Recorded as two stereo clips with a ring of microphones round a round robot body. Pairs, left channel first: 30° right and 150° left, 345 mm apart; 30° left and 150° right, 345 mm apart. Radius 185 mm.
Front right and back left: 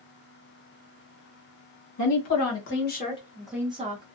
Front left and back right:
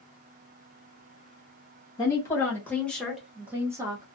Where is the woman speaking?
50° right, 1.2 m; by 4.0 s 145° left, 0.8 m.